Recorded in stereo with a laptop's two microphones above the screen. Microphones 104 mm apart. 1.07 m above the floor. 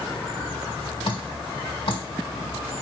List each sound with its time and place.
1.0 s dripping: 55° left (ahead or behind), 1.5 m